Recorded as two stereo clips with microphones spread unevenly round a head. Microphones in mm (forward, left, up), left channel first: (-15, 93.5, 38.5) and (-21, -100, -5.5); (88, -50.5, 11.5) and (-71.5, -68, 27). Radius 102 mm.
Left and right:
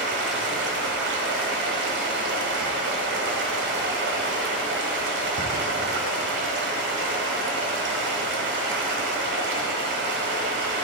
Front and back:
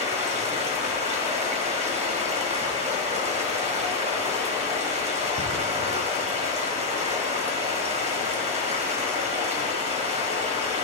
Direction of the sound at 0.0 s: 125° right.